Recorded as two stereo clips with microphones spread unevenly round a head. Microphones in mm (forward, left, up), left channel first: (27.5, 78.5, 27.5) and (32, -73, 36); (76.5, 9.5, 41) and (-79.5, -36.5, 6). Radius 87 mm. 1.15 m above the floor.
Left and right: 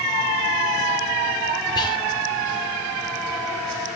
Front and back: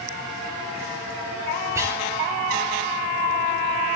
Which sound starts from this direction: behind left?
Whispering, at 1.8 s.